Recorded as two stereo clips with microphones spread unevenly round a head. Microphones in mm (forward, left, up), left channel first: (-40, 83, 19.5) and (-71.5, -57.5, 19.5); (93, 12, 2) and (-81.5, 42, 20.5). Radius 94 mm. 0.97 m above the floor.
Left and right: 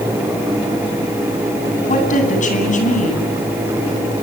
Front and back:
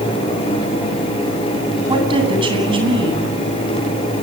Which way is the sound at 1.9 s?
110° left.